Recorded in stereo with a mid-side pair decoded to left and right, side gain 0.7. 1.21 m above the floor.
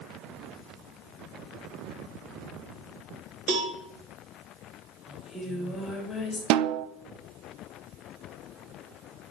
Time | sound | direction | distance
3.5 | a cowbell | 50° right | 2.5 m
5.1 | singing | 20° left | 3 m
6.5 | a snare drum | 65° right | 0.6 m